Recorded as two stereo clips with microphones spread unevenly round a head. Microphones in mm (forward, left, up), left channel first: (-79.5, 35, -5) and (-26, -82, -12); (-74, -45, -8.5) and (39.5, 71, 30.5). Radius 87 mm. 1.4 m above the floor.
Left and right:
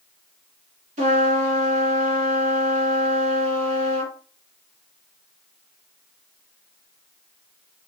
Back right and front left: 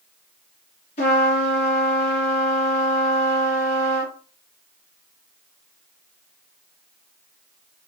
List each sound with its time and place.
1.0 s a trumpet: 75° right, 2.5 m